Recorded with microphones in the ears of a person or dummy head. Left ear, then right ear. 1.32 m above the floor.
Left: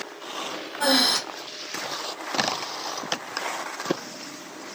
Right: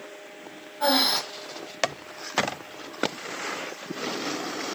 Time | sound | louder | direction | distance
0.8 | breathing | left 1 dB | 85° left | 1.0 m